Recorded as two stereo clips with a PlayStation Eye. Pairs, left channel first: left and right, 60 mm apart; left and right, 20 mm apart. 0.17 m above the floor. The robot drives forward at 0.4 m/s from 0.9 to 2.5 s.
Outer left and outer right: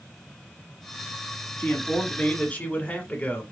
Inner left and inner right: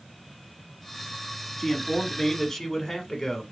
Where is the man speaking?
30° left (ahead or behind), 1.2 m.